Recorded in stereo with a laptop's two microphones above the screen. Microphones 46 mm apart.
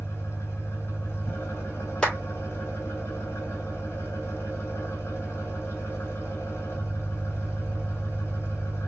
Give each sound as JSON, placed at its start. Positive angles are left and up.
{"t": 0.0, "sound": "an engine running", "side_deg": 70, "distance_m": 2.5}
{"t": 2.0, "sound": "a clap", "side_deg": 15, "distance_m": 2.5}